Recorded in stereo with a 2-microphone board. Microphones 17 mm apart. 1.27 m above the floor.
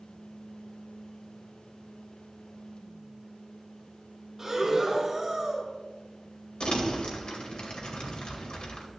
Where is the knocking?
No knocking in this recording.